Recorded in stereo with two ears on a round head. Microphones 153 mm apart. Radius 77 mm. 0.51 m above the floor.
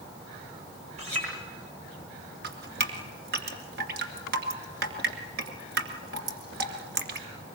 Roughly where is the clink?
Right.